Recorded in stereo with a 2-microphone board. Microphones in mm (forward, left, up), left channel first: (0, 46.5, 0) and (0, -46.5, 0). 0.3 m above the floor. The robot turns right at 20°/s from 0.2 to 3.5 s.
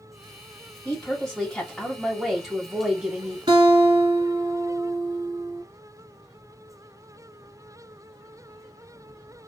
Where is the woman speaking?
160° left, 1.1 m; by 3.4 s 150° right, 1.1 m.